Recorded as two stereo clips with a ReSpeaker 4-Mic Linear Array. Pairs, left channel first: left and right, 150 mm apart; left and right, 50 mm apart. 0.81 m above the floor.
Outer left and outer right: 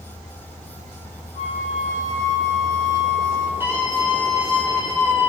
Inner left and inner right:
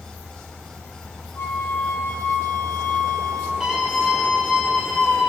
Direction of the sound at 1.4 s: 55° left (ahead or behind).